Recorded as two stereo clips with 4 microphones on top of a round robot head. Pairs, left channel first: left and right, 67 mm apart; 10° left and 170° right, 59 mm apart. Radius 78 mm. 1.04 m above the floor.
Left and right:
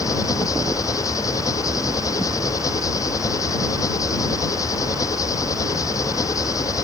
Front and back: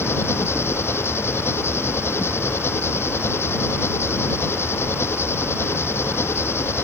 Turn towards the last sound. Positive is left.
turn(degrees=55)